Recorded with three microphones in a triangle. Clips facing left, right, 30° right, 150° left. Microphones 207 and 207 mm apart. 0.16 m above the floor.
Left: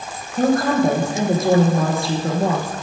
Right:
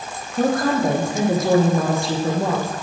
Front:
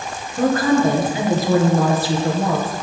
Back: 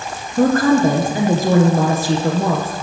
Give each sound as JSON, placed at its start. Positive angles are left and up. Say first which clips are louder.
{"t": 0.4, "sound": "a woman speaking", "louder": "left 2 dB, back 3 dB", "azimuth_deg": 180, "distance_m": 2.0}